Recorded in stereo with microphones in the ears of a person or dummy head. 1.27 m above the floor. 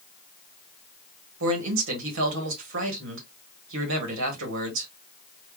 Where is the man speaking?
70° right (ahead or behind), 1.4 m.